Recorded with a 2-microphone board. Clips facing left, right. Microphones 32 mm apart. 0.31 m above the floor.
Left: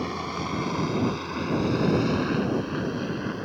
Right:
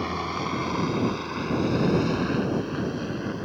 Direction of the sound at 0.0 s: 10° right (ahead or behind).